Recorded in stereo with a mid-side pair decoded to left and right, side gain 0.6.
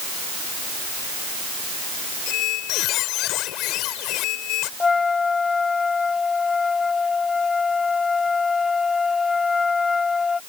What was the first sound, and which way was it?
A squeak, 70° left.